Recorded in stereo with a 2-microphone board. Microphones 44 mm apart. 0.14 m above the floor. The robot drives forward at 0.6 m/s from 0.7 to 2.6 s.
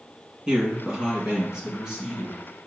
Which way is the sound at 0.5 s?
20° right (ahead or behind).